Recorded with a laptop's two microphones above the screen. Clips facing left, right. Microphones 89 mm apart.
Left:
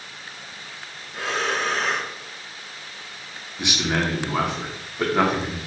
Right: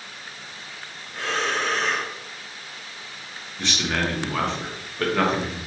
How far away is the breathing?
About 0.6 m.